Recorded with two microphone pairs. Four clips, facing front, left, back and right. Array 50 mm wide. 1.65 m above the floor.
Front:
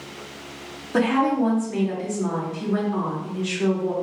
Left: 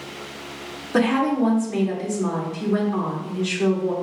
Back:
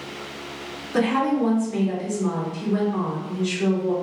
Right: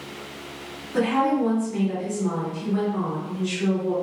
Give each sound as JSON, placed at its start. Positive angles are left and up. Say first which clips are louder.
{"t": 0.9, "sound": "a woman speaking", "louder": "left 2 dB, front 1 dB", "azimuth_deg": 65, "distance_m": 2.0}